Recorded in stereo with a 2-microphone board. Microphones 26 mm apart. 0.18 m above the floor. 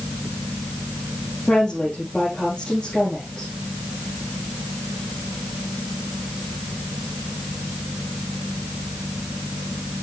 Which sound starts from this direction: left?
A woman speaking, at 1.5 s.